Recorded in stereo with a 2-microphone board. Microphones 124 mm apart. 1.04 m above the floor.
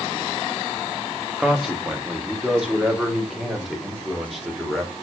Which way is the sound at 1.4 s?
5° right (ahead or behind).